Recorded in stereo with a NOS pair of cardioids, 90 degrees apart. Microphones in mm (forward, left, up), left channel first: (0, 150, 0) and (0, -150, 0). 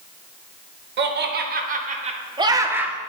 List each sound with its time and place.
1.0 s laughter: 40° right, 1.9 m; by 3.0 s straight ahead, 1.3 m